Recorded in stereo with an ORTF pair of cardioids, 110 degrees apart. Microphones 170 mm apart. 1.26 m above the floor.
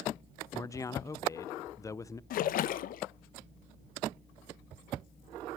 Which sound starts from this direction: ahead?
A man speaking, at 0.5 s.